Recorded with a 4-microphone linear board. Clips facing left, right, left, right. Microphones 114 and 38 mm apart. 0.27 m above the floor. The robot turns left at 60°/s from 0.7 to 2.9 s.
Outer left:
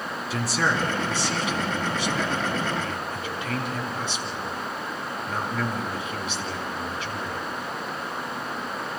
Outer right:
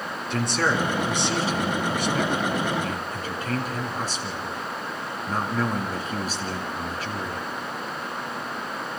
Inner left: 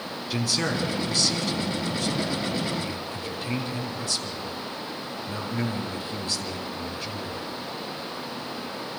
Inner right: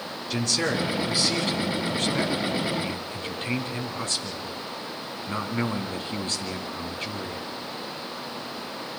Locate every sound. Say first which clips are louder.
0.3 s a man speaking: outer right 2 dB, inner right 1 dB; 5° left, 3 m; by 7.5 s 130° right, 3 m